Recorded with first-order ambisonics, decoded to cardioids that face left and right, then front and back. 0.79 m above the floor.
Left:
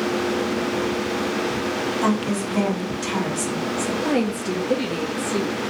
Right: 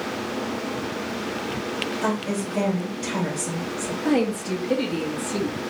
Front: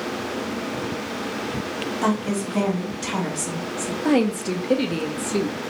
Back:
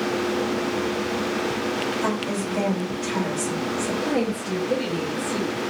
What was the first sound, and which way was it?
A woman speaking, 45° left.